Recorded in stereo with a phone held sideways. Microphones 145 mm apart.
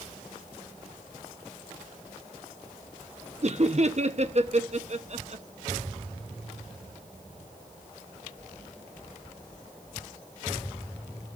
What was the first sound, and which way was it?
Laughter, 50° right (ahead or behind).